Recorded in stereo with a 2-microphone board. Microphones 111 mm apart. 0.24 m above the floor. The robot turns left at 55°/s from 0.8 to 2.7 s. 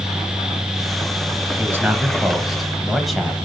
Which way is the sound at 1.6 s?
20° right (ahead or behind).